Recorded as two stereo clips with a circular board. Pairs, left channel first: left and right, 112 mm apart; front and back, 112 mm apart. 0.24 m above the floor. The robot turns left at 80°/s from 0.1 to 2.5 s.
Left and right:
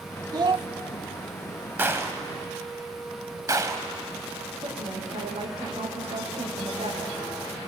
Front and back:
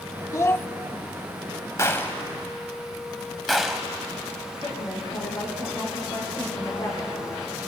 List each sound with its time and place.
0.3 s a child speaking: 50° right, 0.8 m; by 0.7 s 75° right, 0.8 m
1.8 s a gunshot: 35° right, 1.7 m; by 3.9 s 90° right, 1.7 m
4.6 s a woman speaking: 60° right, 8 m